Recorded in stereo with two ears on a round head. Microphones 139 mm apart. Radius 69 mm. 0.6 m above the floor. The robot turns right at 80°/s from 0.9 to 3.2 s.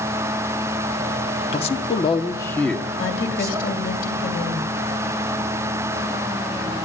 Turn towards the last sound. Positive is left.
turn(degrees=65)  # may be behind; listen again after turning